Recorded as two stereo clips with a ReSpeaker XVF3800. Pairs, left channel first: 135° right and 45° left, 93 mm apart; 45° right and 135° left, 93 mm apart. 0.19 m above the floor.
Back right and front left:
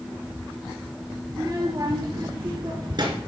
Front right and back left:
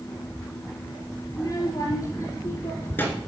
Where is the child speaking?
5° right, 3 m; by 3.2 s 25° left, 2 m.